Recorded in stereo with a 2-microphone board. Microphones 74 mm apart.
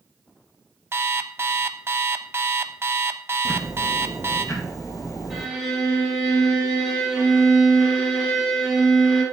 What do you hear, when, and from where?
0.9 s an alarm clock: 35° right (ahead or behind), 0.6 m
3.5 s ticking: 50° left (ahead or behind), 1.7 m
5.3 s a violin: 5° right (ahead or behind), 5 m